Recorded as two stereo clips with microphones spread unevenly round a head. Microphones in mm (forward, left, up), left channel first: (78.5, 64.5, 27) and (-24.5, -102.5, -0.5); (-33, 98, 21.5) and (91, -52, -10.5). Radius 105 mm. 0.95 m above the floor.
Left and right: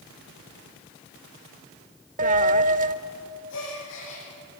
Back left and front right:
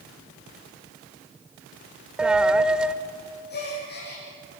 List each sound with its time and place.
2.2 s a dropped coin: 150° right, 0.7 m
3.5 s a gasp: 95° left, 9.5 m